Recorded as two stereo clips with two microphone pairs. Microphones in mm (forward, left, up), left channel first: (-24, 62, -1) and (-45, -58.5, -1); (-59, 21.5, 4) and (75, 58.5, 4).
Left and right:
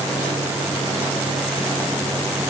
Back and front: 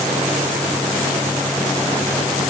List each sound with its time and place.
Only background noise.